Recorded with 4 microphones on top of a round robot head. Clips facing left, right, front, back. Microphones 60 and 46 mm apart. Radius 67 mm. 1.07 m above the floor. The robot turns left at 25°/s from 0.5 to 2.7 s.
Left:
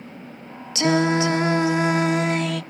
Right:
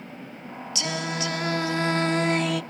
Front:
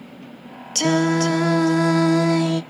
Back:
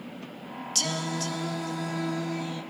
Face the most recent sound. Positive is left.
turn(degrees=-5)